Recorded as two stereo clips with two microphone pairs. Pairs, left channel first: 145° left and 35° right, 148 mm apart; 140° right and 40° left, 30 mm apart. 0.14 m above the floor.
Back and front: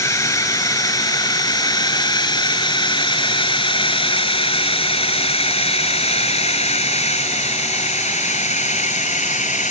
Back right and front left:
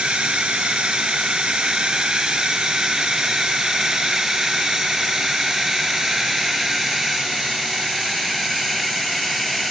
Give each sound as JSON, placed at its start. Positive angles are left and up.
{"t": 0.0, "sound": "a drone", "azimuth_deg": 85}